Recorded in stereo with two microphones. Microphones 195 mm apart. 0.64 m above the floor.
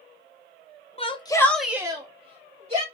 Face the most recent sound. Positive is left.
turn(degrees=-30)  # may be behind; listen again after turning